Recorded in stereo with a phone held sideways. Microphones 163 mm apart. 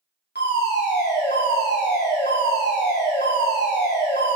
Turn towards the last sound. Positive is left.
turn(degrees=75)  # may be behind; listen again after turning